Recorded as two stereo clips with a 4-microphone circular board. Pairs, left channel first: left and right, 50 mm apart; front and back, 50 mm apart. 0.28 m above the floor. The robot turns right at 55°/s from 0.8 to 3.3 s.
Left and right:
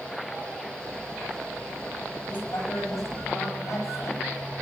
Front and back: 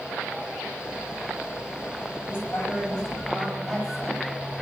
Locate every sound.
2.3 s a woman speaking: 35° left, 9.5 m; by 4.3 s 95° left, 9.5 m